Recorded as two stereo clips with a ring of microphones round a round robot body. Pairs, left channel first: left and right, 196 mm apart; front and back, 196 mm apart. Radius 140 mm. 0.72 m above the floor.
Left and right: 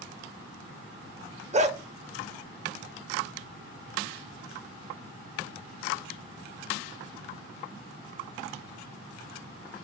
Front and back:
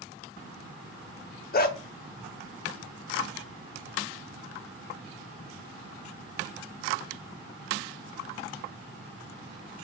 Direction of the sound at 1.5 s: 35° right.